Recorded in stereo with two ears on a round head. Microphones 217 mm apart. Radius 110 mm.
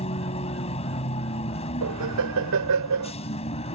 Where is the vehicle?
25° left (ahead or behind).